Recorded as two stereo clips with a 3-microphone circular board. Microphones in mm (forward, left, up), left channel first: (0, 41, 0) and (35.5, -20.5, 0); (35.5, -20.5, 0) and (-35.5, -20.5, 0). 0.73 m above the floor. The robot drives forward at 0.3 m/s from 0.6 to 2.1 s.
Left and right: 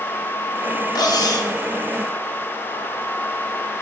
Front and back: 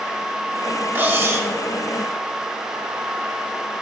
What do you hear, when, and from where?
0.9 s cutlery clinking: 120° left, 0.7 m; by 1.5 s 130° left, 0.8 m